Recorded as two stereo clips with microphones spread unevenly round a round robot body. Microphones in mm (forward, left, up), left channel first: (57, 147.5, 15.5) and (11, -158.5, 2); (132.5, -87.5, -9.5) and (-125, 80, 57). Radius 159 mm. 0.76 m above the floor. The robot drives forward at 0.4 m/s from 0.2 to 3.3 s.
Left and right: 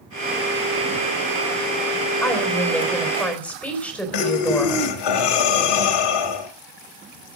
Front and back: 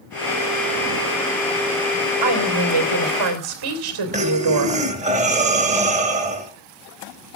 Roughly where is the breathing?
Left.